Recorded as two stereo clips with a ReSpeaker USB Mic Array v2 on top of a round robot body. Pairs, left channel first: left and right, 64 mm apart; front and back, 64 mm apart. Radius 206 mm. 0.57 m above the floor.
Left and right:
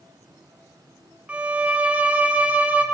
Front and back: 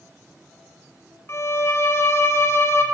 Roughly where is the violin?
Ahead right.